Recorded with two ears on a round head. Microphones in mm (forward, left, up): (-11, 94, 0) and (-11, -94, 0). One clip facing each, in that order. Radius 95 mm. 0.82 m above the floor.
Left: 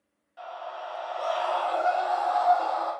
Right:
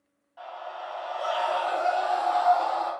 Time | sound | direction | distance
0.4 | a scream | 20° left (ahead or behind) | 1.2 m